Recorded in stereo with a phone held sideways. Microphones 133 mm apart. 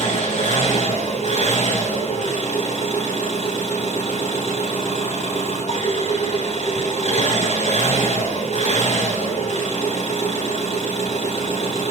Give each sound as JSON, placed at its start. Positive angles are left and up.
{"t": 0.0, "sound": "an engine running", "side_deg": 60, "distance_m": 6.0}